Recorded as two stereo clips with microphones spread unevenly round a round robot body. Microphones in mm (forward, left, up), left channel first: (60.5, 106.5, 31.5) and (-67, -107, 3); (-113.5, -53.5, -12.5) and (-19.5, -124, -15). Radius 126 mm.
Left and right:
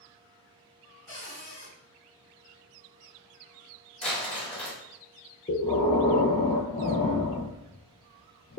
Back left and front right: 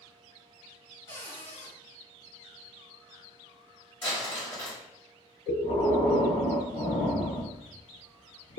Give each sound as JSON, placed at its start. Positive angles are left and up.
{"t": 1.1, "sound": "a cupboard door", "azimuth_deg": 140, "distance_m": 2.0}
{"t": 4.0, "sound": "crumpling", "azimuth_deg": 115, "distance_m": 1.4}
{"t": 5.5, "sound": "breathing", "azimuth_deg": 135, "distance_m": 0.5}